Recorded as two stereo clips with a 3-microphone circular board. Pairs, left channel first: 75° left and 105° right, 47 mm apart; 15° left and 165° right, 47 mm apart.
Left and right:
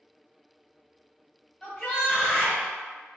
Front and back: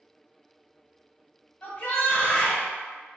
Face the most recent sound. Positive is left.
turn(degrees=-5)